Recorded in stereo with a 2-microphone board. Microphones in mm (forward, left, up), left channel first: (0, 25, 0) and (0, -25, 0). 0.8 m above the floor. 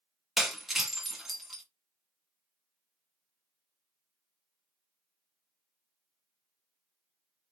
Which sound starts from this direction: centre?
Breaking glass, at 0.4 s.